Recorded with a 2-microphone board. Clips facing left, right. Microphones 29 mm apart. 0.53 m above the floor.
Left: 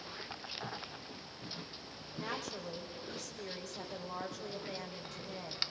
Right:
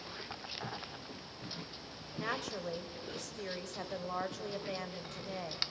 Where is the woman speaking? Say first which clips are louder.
Right 3 dB; 65° right (ahead or behind), 2 m.